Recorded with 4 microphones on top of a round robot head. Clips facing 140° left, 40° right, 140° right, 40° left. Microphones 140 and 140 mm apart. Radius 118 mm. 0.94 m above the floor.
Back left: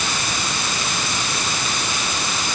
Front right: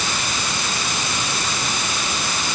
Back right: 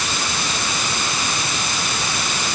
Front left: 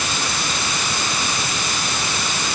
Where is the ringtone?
No ringtone in this recording.